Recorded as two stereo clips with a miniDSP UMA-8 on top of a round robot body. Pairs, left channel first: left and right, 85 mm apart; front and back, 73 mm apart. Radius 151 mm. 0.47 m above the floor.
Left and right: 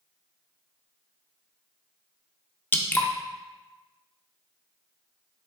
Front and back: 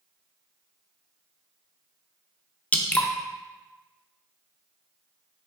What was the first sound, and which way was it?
Dripping, 50° left.